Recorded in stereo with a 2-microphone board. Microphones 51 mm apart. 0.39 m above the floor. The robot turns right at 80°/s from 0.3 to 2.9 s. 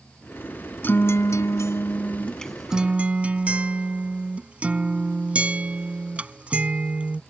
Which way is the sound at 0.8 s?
40° left.